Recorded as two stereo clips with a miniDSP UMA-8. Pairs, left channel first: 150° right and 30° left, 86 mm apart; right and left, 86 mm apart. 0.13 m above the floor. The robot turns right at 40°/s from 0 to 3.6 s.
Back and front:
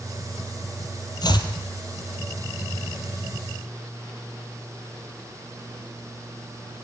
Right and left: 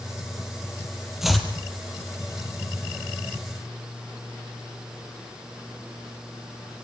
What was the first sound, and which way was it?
Chopping, 175° left.